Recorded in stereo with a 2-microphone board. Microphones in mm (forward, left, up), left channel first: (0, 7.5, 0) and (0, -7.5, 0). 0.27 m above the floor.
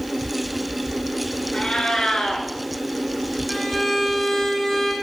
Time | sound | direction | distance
1.5 | a cat meowing | 65° left (ahead or behind) | 1.2 m
3.5 | a violin | 20° left (ahead or behind) | 1.0 m